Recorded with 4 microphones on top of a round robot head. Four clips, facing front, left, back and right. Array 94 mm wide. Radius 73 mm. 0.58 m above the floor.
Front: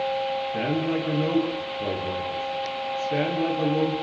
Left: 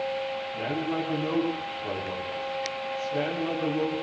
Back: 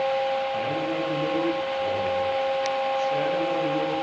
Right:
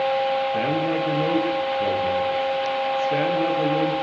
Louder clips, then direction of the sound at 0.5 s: Right 7 dB, front 1 dB; 60° right.